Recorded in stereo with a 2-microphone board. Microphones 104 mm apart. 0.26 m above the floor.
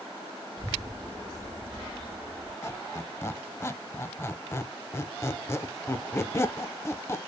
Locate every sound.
0.6 s a child speaking: 45° right (ahead or behind), 0.8 m; by 2.5 s 20° right (ahead or behind), 1.8 m
2.6 s a squeak: 25° left (ahead or behind), 0.5 m